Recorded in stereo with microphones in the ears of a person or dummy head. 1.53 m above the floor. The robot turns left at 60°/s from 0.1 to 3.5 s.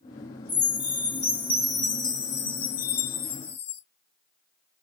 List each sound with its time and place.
0.5 s a chime: 145° right, 0.7 m; by 3.8 s 35° left, 0.7 m